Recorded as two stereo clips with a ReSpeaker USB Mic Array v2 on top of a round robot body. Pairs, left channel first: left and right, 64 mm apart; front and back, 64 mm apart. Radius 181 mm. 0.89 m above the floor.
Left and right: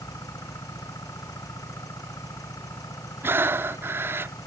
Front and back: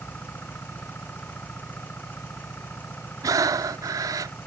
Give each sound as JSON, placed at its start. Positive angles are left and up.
{"t": 0.0, "sound": "an engine running", "azimuth_deg": 60}
{"t": 3.2, "sound": "breathing", "azimuth_deg": -145}